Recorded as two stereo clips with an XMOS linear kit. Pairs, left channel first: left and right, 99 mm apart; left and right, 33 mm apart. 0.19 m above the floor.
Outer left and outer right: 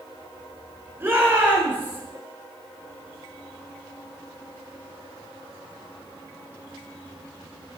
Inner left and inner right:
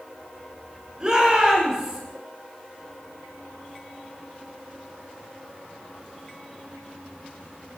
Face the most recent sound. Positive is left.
turn(degrees=-20)  # may be behind; listen again after turning